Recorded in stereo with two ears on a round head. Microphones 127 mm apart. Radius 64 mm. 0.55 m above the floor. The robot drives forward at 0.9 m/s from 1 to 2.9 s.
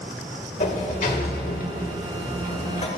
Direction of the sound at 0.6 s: 55° left (ahead or behind).